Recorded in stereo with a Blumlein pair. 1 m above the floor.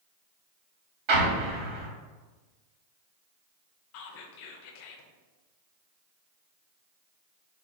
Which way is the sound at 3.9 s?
45° left.